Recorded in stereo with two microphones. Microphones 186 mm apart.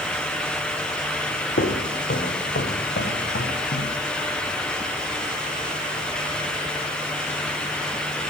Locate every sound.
1.6 s footsteps: 85° left, 1.6 m